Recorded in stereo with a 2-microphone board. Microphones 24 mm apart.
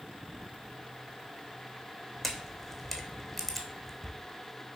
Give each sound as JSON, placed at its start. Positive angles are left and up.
{"t": 2.2, "sound": "a camera shutter", "side_deg": 5, "distance_m": 0.9}